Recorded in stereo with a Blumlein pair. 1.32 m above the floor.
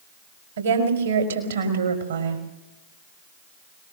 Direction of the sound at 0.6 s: 70° right.